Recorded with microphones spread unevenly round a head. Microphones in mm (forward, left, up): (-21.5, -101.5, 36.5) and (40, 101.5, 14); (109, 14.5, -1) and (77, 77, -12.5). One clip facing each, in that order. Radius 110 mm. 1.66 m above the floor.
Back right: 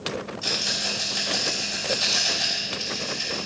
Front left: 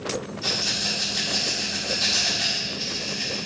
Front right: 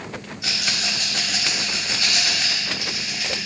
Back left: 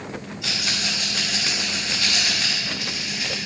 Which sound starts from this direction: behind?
A rattle, at 0.4 s.